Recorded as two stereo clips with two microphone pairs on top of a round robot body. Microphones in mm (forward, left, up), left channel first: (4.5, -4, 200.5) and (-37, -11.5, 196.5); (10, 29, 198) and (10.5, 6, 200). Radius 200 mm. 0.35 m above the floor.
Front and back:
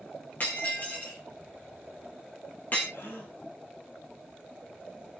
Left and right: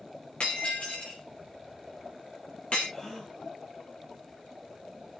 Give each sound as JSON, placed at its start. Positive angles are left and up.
{"t": 0.4, "sound": "breaking glass", "azimuth_deg": 55, "distance_m": 5.0}
{"t": 2.9, "sound": "a gasp", "azimuth_deg": 25, "distance_m": 6.0}